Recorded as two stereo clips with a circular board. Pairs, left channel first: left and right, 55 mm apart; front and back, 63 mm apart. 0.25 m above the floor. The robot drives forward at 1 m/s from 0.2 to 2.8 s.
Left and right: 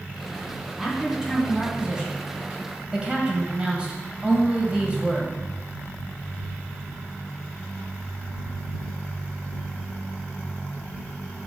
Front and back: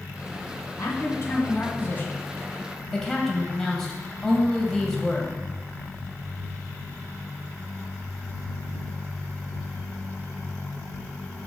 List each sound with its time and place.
0.8 s a man speaking: 15° right, 2.5 m; by 5.3 s 70° right, 1.5 m